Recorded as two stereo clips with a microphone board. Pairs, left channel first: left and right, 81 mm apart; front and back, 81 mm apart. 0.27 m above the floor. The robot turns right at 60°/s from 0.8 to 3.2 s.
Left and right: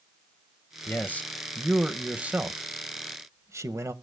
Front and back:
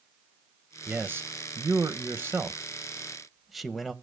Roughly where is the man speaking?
Behind left.